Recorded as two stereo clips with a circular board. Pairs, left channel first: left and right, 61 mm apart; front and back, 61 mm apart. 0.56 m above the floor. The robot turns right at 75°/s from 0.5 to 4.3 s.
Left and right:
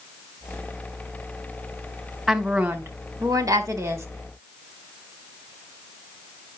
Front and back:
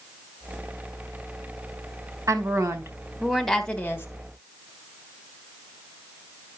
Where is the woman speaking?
Straight behind, 1.6 m; by 4.1 s 45° right, 1.6 m.